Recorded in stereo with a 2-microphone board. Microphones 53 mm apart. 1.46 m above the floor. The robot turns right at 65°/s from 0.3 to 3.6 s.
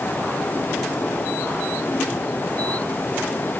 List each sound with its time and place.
Only background noise.